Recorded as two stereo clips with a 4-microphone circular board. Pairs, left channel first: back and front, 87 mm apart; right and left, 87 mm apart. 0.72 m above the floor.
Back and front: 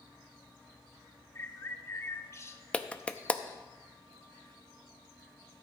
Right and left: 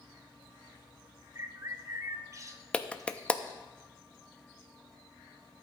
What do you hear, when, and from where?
1.4 s a bird: 130° left, 0.7 m
2.7 s a clap: 135° right, 0.5 m